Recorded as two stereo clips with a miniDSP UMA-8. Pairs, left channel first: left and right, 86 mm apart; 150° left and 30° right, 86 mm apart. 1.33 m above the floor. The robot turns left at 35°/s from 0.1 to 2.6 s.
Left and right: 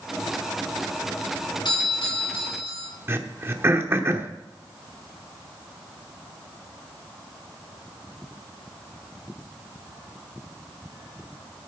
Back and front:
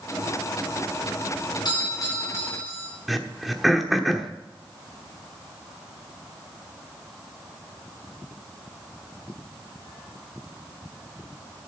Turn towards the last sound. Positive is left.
turn(degrees=-120)